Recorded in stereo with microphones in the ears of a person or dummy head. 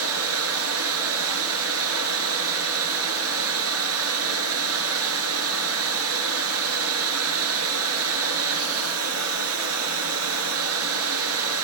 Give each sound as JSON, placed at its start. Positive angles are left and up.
{"t": 0.0, "sound": "running water", "side_deg": -85, "distance_m": 9.5}